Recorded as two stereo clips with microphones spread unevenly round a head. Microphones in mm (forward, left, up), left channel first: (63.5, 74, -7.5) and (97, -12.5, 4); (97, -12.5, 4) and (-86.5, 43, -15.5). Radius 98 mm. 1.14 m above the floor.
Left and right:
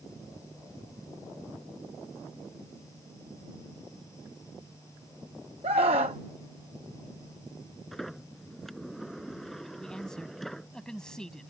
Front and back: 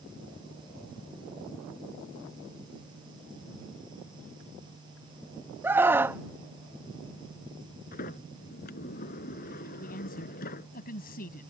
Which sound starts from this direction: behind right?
A scream, at 5.6 s.